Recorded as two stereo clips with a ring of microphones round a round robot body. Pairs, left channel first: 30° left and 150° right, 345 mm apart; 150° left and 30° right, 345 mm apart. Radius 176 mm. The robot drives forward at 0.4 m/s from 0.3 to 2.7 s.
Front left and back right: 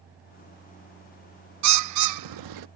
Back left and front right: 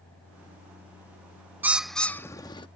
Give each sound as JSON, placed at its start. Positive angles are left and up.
{"t": 1.6, "sound": "a bird", "azimuth_deg": -115}